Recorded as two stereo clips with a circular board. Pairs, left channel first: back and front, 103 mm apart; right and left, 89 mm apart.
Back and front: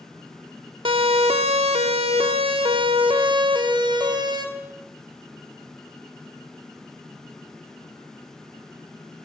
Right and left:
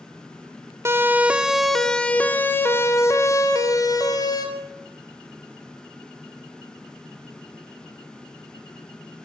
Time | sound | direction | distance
0.8 | a siren | 30° left | 2 m